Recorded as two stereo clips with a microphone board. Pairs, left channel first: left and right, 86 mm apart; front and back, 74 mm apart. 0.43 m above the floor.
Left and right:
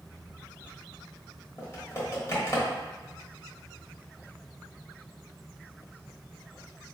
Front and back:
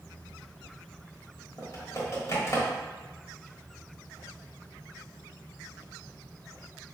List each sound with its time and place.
1.6 s typing on a keyboard: 40° left, 1.2 m